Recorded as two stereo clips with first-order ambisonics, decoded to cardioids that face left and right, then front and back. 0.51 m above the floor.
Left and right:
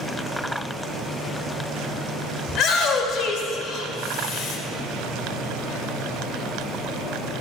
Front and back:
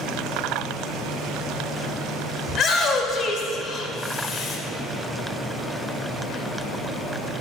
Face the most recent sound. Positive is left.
turn(degrees=50)